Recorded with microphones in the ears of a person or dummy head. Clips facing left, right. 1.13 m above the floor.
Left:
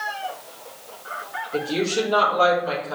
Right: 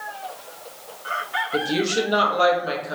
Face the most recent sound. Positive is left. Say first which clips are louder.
# even
turn(degrees=-15)  # may be behind; listen again after turning